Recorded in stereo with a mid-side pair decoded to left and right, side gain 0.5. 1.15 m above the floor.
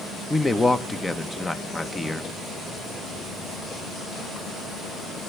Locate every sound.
0.3 s a man speaking: 20° left, 1.1 m